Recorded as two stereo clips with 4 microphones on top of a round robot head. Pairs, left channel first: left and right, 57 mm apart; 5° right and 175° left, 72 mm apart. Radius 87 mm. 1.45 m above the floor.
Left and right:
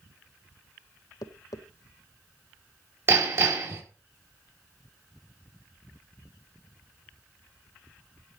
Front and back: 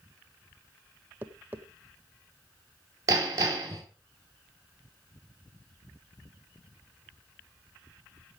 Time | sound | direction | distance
1.2 | tapping | 110° left | 1.0 m
3.1 | hammering | 135° right | 5 m